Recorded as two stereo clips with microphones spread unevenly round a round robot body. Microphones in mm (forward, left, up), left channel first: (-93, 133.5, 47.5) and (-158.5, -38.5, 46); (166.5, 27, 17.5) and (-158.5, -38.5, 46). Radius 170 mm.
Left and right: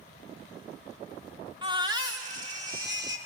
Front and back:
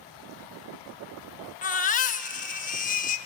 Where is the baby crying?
45° right, 1.0 m.